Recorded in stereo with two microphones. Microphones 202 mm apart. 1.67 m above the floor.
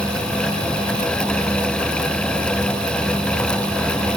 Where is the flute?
I don't hear a flute.